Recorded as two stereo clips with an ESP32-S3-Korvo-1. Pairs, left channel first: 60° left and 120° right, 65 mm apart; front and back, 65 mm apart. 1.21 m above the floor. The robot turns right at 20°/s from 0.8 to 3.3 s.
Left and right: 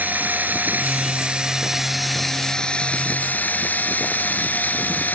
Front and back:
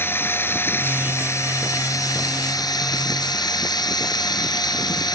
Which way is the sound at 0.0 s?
55° right.